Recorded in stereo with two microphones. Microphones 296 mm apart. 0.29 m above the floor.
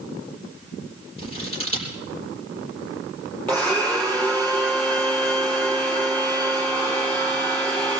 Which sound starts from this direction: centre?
A blender, at 3.5 s.